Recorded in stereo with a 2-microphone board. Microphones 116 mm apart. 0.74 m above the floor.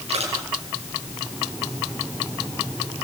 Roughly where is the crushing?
Right.